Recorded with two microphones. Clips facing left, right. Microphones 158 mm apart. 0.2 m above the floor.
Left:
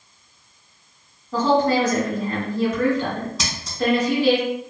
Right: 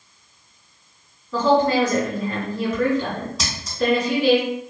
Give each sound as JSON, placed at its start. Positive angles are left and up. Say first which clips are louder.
{"t": 1.3, "sound": "a woman speaking", "louder": "right 1 dB", "side_deg": 40, "distance_m": 1.7}
{"t": 3.4, "sound": "scissors", "louder": "even", "side_deg": 0, "distance_m": 0.8}